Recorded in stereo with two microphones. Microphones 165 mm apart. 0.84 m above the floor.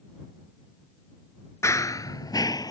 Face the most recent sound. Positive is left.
turn(degrees=20)  # may be behind; listen again after turning